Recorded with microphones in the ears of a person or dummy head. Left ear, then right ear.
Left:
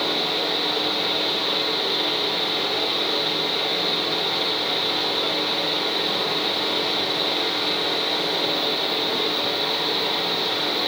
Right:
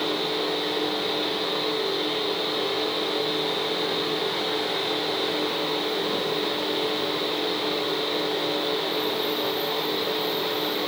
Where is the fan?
25° left (ahead or behind), 1.1 m.